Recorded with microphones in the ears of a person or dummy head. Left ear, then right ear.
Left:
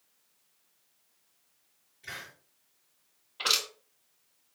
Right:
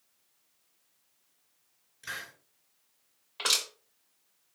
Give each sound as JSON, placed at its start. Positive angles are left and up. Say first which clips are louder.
{"t": 2.0, "sound": "a hiss", "louder": "right 3 dB", "side_deg": -45, "distance_m": 3.0}
{"t": 3.4, "sound": "crushing", "louder": "left 1 dB", "side_deg": -55, "distance_m": 3.0}